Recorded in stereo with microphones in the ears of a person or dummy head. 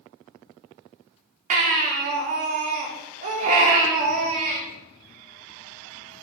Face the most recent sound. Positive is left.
turn(degrees=-45)  # may be behind; listen again after turning